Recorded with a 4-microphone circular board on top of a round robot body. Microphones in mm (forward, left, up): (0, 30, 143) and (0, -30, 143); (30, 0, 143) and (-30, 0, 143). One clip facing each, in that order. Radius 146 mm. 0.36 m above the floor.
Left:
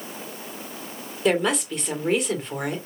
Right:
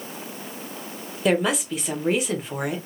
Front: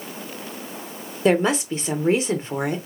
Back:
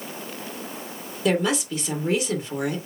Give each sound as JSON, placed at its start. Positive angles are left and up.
{"t": 1.2, "sound": "a woman speaking", "azimuth_deg": -5, "distance_m": 1.4}